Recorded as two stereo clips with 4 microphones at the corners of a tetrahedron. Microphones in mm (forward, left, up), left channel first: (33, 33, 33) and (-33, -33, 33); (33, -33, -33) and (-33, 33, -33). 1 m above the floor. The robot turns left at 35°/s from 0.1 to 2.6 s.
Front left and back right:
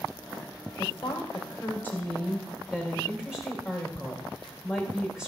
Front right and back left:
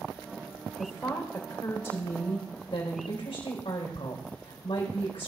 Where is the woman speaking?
10° left, 3.5 m; by 5.3 s 50° right, 3.5 m.